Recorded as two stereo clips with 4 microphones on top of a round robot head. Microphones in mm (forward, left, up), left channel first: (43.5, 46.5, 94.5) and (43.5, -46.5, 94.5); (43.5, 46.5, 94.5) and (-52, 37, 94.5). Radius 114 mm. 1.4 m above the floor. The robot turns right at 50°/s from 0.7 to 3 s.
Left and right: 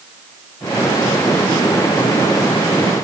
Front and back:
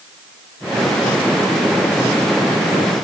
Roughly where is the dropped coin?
No dropped coin in this recording.